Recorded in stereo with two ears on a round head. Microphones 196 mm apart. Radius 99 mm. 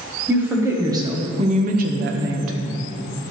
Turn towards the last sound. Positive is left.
turn(degrees=-70)  # may be behind; listen again after turning